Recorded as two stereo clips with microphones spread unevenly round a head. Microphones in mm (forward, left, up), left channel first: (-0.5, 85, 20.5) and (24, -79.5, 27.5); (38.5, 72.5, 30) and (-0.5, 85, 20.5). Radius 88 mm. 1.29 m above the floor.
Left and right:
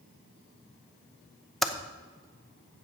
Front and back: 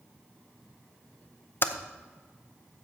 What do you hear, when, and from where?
1.6 s typing on a keyboard: 10° left, 0.7 m